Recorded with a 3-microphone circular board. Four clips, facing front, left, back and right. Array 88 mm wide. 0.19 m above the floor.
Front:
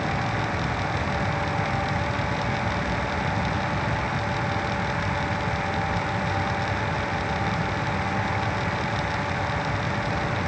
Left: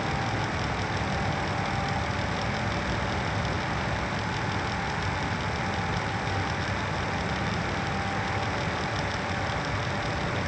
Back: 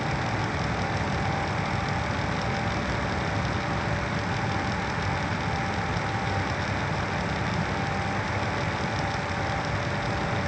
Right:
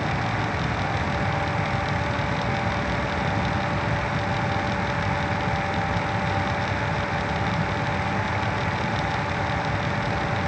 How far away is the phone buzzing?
I don't hear a phone buzzing.